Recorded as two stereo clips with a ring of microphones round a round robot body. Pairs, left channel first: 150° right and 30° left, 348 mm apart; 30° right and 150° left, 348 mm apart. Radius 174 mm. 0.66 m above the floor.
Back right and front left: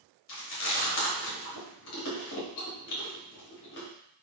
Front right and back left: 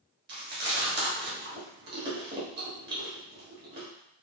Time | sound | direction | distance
0.3 | chewing | 160° right | 1.3 m